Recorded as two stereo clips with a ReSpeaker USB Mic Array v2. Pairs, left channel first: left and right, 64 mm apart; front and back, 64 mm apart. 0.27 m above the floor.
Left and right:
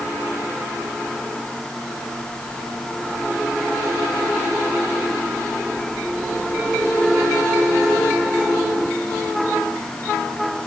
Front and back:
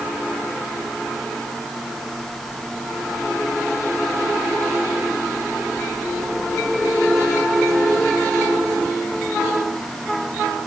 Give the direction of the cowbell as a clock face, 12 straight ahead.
No cowbell in this recording.